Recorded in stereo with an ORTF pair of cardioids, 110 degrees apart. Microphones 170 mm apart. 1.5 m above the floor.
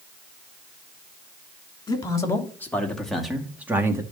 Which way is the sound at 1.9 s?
25° left.